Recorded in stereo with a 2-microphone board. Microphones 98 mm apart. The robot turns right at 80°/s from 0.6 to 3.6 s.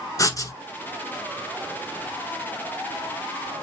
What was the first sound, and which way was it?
Writing, 35° left (ahead or behind).